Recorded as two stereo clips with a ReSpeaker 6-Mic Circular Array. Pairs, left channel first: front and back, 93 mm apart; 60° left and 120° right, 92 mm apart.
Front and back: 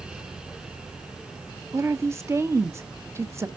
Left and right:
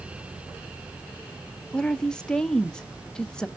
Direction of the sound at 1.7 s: 140° left.